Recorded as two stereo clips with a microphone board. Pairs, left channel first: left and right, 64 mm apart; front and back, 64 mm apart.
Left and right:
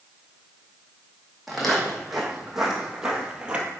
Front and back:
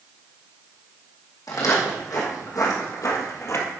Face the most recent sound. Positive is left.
turn(degrees=-25)